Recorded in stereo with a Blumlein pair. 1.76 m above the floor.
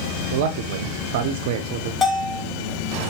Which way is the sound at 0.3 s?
50° right.